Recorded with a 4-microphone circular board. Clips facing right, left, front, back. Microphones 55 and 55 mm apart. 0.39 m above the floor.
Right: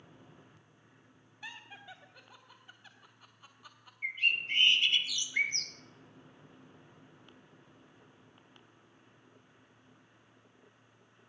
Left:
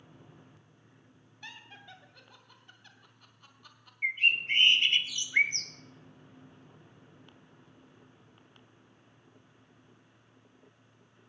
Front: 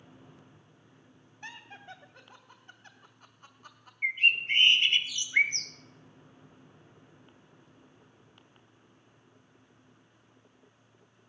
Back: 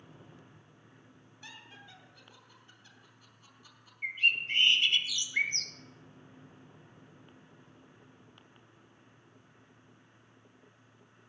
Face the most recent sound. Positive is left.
turn(degrees=50)